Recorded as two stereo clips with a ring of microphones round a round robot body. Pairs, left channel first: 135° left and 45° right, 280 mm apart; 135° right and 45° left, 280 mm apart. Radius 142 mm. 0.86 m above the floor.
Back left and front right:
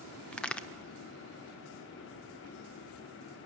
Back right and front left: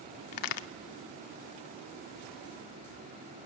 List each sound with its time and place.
0.3 s a crack: 140° right, 0.7 m